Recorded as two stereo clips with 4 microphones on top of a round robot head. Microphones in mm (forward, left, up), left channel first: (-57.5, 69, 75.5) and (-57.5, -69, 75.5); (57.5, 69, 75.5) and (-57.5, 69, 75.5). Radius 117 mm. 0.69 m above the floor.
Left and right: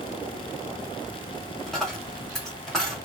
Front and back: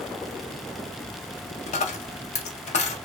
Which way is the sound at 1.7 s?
Straight ahead.